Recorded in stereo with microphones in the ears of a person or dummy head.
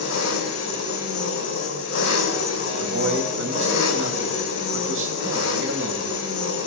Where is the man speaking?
70° right (ahead or behind), 2.5 m.